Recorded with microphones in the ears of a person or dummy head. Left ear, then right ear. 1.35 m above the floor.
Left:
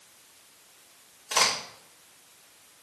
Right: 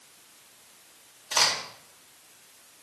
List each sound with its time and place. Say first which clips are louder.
1.3 s a crack: even; 50° left (ahead or behind), 3.5 m